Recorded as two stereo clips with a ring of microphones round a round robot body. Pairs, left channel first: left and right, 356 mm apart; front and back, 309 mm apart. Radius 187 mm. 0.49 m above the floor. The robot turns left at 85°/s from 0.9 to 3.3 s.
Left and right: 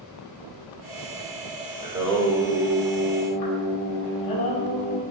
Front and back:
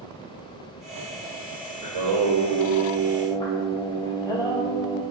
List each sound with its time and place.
1.8 s singing: 160° right, 1.6 m; by 5.0 s 75° left, 1.6 m